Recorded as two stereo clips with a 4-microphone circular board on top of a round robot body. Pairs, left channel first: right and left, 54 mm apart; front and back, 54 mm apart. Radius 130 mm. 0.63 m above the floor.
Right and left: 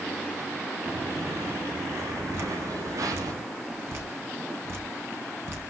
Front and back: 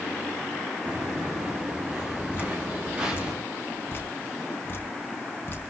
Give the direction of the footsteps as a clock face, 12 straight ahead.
8 o'clock.